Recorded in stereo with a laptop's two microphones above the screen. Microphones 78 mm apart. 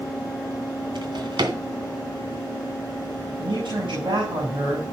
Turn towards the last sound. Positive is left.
turn(degrees=-85)